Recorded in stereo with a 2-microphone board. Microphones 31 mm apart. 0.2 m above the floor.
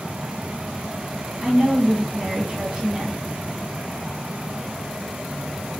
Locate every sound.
1.4 s a woman speaking: 30° right (ahead or behind), 1.6 m